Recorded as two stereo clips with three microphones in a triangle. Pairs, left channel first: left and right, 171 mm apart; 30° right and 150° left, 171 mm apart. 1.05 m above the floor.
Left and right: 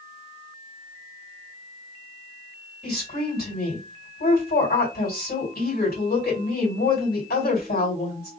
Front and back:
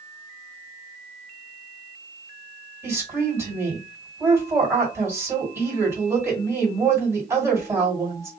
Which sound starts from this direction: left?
A woman speaking, at 2.8 s.